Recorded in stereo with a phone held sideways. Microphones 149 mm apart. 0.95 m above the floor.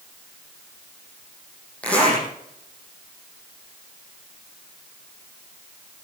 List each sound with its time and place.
1.8 s a zipper: 10° left (ahead or behind), 6 m